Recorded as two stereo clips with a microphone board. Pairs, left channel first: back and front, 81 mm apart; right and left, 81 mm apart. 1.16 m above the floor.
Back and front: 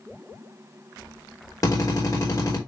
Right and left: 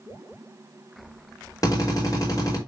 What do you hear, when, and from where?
1.6 s a drill: 135° right, 5 m